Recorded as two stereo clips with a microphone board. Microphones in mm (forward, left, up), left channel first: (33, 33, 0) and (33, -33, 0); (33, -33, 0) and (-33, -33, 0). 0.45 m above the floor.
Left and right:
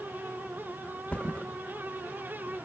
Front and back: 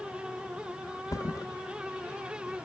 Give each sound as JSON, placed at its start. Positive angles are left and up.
{"t": 1.1, "sound": "a thud", "azimuth_deg": 20, "distance_m": 1.0}